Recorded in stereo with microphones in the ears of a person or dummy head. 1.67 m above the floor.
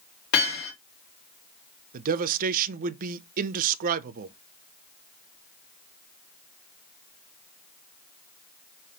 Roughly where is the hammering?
Left.